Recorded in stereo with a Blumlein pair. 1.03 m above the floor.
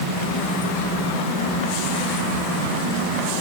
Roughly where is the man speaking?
I don't hear a man speaking.